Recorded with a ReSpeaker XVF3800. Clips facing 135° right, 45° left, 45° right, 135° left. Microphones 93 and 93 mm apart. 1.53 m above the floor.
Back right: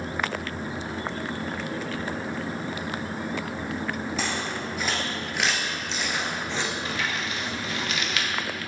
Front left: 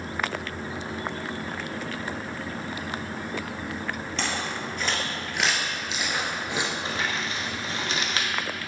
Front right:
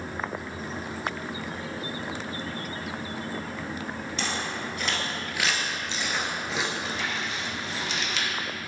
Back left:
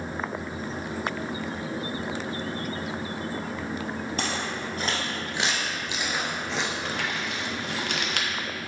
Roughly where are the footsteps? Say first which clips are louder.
Back right 1 dB, front right 1 dB; behind left.